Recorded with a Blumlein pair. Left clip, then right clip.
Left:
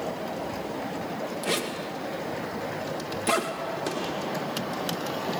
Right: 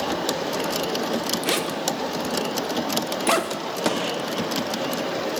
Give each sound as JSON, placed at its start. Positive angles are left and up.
{"t": 1.4, "sound": "a zipper", "azimuth_deg": -15, "distance_m": 1.8}
{"t": 3.9, "sound": "a gunshot", "azimuth_deg": -45, "distance_m": 2.5}